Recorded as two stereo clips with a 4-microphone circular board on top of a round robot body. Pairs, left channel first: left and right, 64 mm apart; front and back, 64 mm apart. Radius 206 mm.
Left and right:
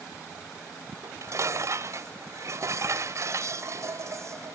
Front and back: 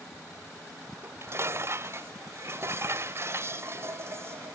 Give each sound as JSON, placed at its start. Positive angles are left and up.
{"t": 1.0, "sound": "dishes clattering", "azimuth_deg": -130}